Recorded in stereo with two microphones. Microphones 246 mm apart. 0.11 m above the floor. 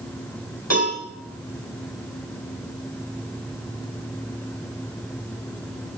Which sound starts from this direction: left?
A cowbell, at 0.7 s.